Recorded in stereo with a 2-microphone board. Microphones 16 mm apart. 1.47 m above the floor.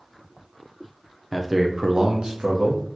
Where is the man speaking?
10° right (ahead or behind), 0.6 m; by 2.8 s 85° right, 1.1 m.